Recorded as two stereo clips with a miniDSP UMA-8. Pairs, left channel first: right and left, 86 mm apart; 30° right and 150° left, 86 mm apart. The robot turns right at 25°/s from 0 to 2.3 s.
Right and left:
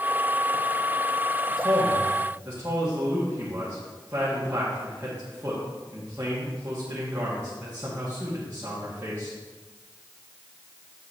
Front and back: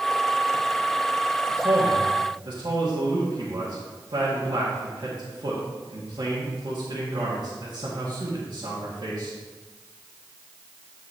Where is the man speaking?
130° left, 2.0 m; by 9.3 s 150° left, 2.0 m.